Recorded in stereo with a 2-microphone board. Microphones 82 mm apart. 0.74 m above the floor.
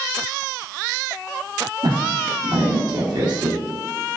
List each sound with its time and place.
1.8 s a woman speaking: 65° right (ahead or behind), 1.8 m